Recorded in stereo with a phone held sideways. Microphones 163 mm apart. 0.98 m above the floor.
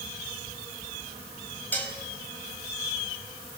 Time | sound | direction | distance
1.7 | dishes clattering | 10° left (ahead or behind) | 4 m